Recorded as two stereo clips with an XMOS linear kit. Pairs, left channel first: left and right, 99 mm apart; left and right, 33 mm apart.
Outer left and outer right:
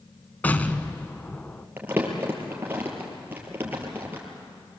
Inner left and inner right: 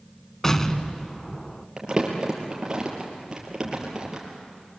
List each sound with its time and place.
0.4 s an explosion: 20° left (ahead or behind), 1.2 m
1.8 s crumpling: 20° right (ahead or behind), 5 m